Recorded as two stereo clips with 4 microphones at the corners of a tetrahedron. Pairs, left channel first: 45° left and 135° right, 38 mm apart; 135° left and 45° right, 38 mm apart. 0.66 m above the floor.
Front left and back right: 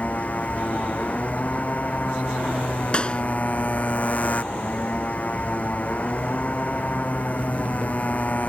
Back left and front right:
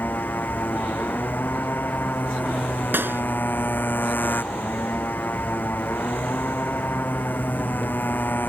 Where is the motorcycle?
100° left.